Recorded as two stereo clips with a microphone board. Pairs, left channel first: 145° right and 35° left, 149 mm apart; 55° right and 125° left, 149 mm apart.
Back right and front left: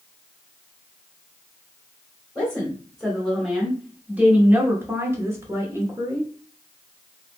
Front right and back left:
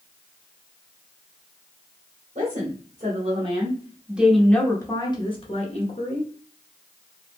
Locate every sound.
2.4 s a woman speaking: 130° left, 1.4 m; by 6.3 s 35° right, 1.4 m